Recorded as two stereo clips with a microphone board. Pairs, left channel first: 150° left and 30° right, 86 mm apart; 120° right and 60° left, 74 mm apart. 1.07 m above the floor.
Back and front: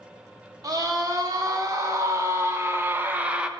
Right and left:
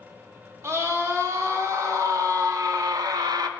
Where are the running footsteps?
I don't hear running footsteps.